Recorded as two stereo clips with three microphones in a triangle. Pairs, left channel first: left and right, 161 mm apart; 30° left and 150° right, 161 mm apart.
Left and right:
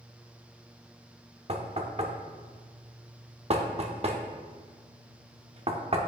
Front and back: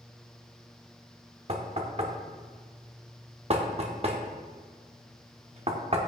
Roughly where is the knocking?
Behind right.